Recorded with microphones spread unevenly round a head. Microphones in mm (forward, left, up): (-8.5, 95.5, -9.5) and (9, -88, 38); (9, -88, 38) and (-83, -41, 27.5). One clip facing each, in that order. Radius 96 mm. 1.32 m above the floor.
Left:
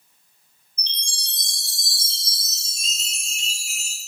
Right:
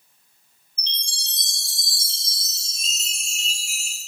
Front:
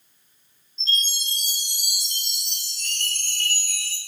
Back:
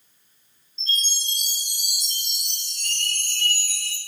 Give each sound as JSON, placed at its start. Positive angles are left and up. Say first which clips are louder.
{"t": 0.8, "sound": "a chime", "louder": "even, front 2 dB", "azimuth_deg": 60, "distance_m": 1.2}